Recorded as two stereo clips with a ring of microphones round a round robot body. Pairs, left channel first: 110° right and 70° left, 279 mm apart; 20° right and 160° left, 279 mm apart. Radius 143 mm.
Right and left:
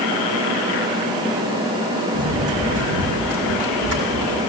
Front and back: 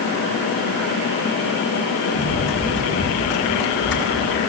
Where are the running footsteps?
30° left, 10 m.